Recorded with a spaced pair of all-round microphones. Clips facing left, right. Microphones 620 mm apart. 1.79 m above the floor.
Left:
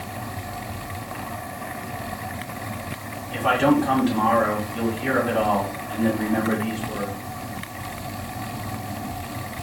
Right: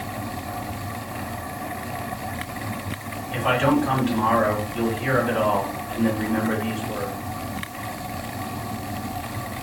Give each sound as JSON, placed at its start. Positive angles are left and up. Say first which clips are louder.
{"t": 3.3, "sound": "a man speaking", "louder": "left 2 dB", "side_deg": 60, "distance_m": 2.0}